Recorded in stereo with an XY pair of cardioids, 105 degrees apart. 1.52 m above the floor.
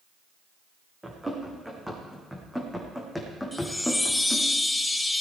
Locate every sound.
1.0 s running footsteps: 15° right, 5.5 m; by 4.5 s 20° left, 3.5 m
3.5 s a chime: 15° left, 1.0 m